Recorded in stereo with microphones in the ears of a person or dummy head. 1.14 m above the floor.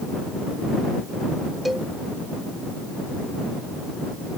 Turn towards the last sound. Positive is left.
turn(degrees=-5)  # may be behind; listen again after turning